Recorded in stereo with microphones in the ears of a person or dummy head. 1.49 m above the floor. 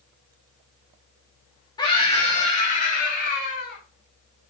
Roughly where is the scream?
Left.